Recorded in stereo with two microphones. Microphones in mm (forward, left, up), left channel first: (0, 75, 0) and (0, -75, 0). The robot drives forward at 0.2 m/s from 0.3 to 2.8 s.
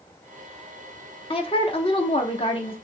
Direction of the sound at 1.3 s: 40° left (ahead or behind).